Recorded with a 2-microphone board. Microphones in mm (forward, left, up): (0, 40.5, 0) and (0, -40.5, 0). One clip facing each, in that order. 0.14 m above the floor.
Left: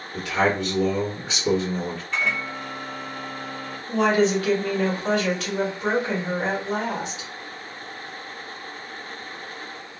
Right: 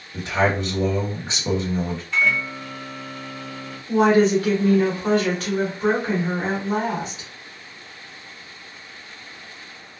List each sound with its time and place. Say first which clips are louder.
0.1 s a man speaking: right 1 dB; 30° right (ahead or behind), 1.6 m
2.1 s a microwave: right 5 dB; centre (ahead or behind), 1.5 m
3.9 s a woman speaking: right 4 dB; 35° right (ahead or behind), 1.4 m